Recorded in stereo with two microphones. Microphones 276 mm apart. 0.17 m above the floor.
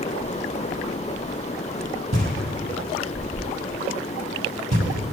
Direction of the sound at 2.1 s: 65° right (ahead or behind).